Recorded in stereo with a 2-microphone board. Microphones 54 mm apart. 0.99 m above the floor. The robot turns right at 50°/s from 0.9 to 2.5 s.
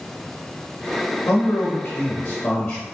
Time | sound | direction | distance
1.3 | a man speaking | 70° left | 2 m